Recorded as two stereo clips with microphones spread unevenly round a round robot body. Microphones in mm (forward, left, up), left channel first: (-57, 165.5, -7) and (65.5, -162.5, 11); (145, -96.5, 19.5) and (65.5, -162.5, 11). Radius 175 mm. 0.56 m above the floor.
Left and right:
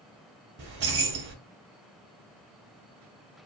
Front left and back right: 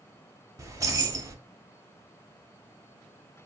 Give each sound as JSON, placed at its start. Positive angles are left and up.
{"t": 0.6, "sound": "keys jangling", "azimuth_deg": -115, "distance_m": 0.8}